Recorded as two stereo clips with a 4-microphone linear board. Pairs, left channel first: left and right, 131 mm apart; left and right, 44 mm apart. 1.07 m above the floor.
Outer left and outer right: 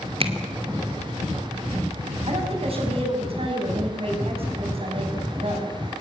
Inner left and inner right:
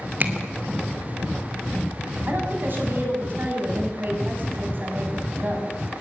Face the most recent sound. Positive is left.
turn(degrees=-45)  # may be behind; listen again after turning